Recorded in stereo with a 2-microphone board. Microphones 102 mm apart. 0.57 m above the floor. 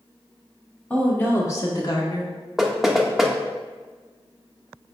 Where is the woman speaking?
10° left (ahead or behind), 1.6 m; by 2.3 s 45° left (ahead or behind), 1.8 m.